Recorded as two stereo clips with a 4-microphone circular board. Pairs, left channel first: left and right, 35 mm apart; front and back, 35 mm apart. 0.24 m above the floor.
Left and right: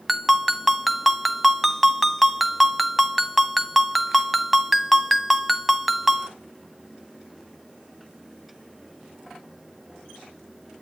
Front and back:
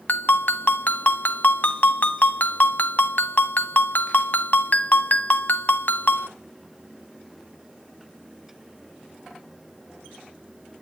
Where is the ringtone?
Straight ahead, 0.7 m.